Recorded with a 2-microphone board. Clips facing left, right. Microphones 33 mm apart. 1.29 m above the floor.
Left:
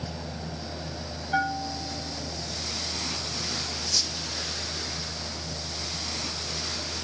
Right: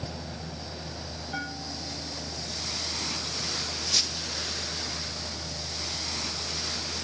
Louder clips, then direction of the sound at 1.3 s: Left 10 dB; 30° left (ahead or behind).